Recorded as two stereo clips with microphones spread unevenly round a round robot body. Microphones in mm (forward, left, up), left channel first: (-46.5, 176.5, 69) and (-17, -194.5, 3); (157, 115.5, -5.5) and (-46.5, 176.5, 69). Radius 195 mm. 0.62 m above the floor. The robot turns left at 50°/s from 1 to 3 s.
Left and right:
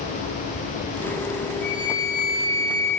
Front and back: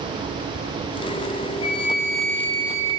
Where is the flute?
55° left, 4 m; by 2.9 s 5° right, 4 m.